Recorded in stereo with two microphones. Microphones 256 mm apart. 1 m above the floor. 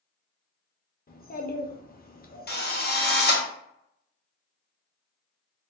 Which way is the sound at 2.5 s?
40° left (ahead or behind).